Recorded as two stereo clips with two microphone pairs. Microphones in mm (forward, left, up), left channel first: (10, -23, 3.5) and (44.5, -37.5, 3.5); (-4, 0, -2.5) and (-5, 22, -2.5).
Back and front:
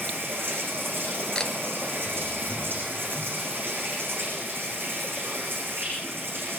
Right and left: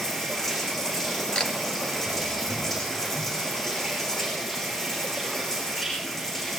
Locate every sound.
0.0 s running water: 15° right, 9.5 m
1.4 s a camera shutter: 130° right, 2.5 m